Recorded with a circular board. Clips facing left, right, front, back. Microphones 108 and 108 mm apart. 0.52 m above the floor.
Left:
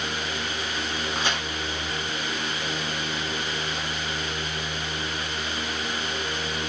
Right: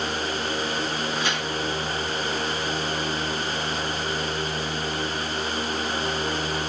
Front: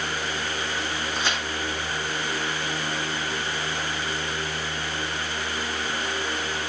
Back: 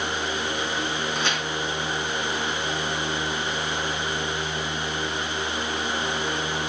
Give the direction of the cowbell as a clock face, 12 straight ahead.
I don't hear a cowbell.